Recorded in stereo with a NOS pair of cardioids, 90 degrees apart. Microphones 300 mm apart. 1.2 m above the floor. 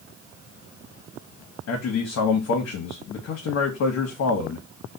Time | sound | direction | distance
1.7 | a man speaking | 60° left | 1.0 m